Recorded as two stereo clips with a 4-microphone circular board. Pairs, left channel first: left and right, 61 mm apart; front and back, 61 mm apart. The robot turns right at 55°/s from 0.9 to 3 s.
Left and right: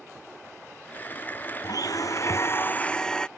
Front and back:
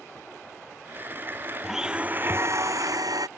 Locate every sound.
1.6 s a blender: 95° left; by 3.3 s 170° left